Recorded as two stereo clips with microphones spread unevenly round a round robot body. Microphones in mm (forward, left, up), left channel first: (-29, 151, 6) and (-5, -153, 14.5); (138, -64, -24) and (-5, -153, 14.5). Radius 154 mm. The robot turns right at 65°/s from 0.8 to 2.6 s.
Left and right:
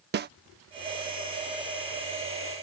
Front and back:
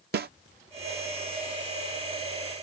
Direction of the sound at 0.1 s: 135° right.